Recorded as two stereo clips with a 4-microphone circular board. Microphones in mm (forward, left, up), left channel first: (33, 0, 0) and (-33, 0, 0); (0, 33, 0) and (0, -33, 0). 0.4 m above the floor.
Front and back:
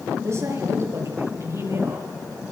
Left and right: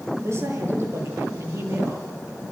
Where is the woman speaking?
135° right, 9.5 m; by 2.1 s 140° right, 8.5 m.